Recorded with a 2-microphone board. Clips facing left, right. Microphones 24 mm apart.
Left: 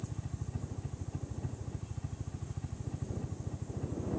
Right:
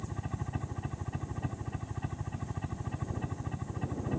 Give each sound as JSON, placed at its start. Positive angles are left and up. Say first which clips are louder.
{"t": 0.0, "sound": "a helicopter", "louder": "right 4 dB", "side_deg": -55}